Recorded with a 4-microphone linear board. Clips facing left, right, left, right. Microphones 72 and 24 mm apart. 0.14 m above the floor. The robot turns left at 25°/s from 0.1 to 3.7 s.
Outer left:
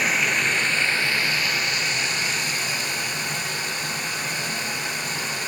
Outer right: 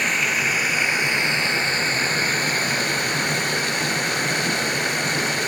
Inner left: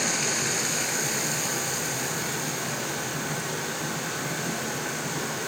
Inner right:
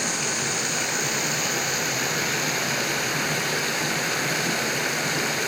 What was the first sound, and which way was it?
Running water, 5° left.